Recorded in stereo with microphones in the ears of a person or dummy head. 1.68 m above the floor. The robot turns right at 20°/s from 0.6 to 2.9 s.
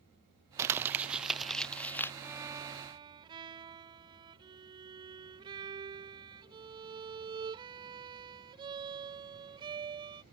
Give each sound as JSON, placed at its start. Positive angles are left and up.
{"t": 0.6, "sound": "crumpling", "azimuth_deg": -15}
{"t": 2.2, "sound": "a violin", "side_deg": -10}